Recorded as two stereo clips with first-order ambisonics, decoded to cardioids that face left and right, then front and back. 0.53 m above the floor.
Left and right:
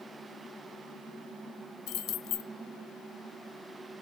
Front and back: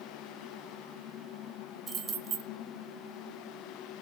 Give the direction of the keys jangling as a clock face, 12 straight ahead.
8 o'clock.